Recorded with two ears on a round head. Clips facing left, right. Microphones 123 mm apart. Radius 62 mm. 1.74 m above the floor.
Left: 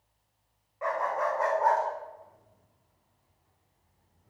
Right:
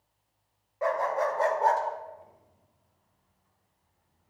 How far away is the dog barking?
About 3 m.